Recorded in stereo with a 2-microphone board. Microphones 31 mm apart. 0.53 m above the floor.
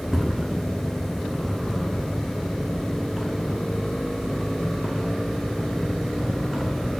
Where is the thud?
Centre (ahead or behind), 1.1 m.